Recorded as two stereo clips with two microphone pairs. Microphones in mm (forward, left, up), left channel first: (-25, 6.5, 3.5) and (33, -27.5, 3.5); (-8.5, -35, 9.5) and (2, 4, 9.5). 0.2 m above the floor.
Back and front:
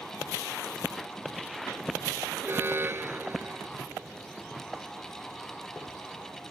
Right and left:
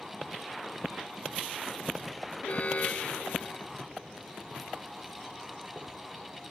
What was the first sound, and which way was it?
An alarm, 70° right.